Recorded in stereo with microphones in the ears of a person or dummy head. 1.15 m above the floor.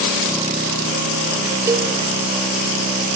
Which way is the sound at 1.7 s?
10° right (ahead or behind).